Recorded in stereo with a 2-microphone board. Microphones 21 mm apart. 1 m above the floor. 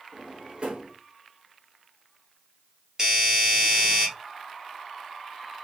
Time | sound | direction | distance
0.1 | a drawer | 45° right (ahead or behind) | 1.0 m
3.0 | a doorbell | 20° right (ahead or behind) | 2 m